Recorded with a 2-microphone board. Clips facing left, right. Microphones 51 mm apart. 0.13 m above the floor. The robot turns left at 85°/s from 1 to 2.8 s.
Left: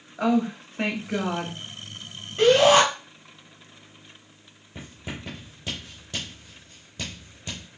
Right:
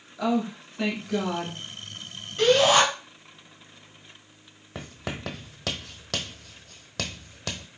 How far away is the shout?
About 3 m.